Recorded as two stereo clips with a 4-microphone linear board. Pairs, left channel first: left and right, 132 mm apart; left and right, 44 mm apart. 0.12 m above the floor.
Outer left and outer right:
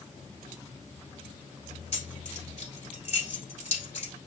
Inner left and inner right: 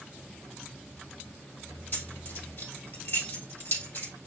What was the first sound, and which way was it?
Keys jangling, 50° left (ahead or behind).